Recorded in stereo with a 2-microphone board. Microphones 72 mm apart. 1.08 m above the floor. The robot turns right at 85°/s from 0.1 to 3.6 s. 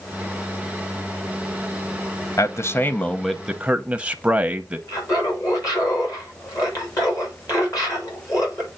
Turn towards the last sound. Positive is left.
turn(degrees=50)  # may be behind; listen again after turning